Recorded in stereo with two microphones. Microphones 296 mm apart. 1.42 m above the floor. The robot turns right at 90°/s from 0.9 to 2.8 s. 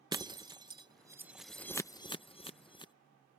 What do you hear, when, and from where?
0.1 s breaking glass: 15° right (ahead or behind); by 2.9 s 15° left (ahead or behind)